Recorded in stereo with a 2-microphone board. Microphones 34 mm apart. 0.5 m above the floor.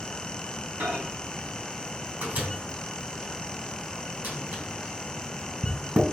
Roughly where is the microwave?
Right.